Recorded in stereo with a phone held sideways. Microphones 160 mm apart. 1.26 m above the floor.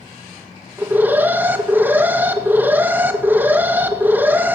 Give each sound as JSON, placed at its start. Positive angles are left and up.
{"t": 0.8, "sound": "an alarm", "side_deg": -10, "distance_m": 2.5}